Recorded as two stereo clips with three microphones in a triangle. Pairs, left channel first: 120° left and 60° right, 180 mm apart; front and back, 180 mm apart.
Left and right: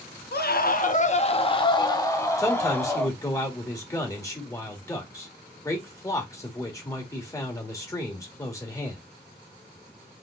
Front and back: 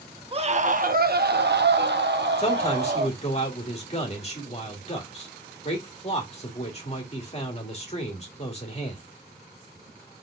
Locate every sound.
0.3 s a scream: 130° left, 0.7 m; by 3.2 s 160° right, 1.6 m
2.4 s a man speaking: 50° left, 1.9 m